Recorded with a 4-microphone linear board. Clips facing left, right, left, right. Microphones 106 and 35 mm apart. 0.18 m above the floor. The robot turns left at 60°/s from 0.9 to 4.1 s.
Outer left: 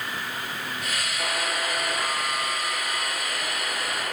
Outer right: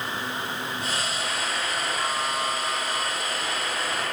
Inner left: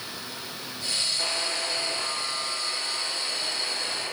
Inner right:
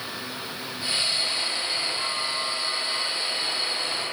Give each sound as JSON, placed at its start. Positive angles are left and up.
{"t": 1.2, "sound": "a buzzer", "azimuth_deg": 45, "distance_m": 6.0}